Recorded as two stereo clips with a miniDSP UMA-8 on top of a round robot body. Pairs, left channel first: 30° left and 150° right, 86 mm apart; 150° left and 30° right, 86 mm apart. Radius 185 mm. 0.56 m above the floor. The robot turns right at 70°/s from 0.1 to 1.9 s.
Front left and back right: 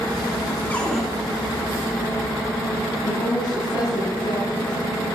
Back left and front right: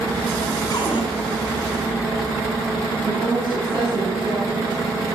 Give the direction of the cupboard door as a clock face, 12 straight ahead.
9 o'clock.